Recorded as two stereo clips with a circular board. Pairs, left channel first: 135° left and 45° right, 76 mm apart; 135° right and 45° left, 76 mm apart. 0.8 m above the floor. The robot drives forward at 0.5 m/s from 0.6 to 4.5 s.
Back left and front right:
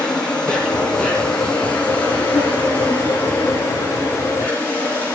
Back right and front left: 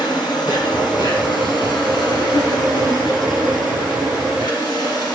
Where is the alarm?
I don't hear an alarm.